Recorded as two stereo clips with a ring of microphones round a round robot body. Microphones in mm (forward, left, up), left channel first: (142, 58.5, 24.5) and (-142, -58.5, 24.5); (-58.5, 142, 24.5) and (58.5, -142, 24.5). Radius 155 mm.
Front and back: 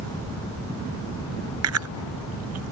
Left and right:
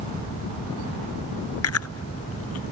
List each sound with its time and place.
1.6 s chewing: 160° left